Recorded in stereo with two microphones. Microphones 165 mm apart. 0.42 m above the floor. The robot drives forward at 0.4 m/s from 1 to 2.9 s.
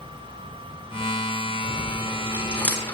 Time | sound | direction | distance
1.6 | chewing | 10° left (ahead or behind) | 7.5 m